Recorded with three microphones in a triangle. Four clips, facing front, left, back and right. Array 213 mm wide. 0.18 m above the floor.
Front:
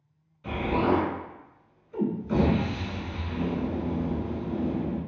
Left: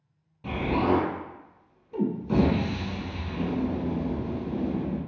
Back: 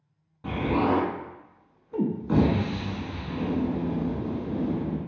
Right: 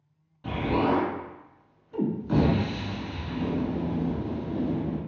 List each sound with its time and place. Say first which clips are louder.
0.4 s an explosion: even, back 1 dB; 160° left, 0.7 m